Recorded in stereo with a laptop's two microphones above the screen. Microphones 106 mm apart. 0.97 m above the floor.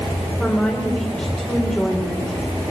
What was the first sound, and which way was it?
A woman speaking, 15° left (ahead or behind).